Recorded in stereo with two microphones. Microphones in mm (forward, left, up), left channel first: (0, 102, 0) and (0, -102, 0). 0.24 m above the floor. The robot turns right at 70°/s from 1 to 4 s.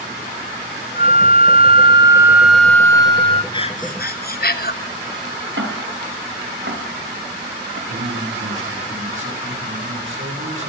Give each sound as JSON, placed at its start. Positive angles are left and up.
{"t": 1.0, "sound": "a flute", "azimuth_deg": -110, "distance_m": 1.2}
{"t": 3.5, "sound": "breathing", "azimuth_deg": 25, "distance_m": 1.1}
{"t": 5.6, "sound": "ticking", "side_deg": -65, "distance_m": 3.0}
{"t": 7.9, "sound": "a man speaking", "side_deg": -75, "distance_m": 9.0}